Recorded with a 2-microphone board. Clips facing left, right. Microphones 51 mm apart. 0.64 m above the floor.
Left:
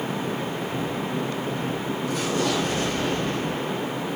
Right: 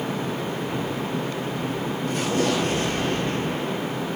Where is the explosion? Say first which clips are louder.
Right 2 dB; 60° right (ahead or behind), 6.5 m.